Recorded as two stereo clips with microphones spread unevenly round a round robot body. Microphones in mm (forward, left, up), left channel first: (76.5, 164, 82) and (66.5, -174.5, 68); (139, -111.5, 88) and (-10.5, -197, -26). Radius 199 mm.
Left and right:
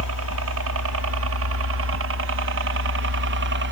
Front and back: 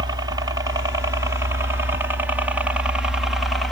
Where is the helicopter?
130° right; by 3.7 s 115° right.